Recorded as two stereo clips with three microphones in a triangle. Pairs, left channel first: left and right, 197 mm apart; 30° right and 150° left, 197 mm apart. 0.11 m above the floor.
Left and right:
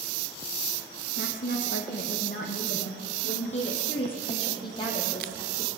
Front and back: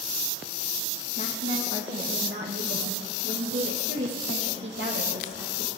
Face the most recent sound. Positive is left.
turn(degrees=165)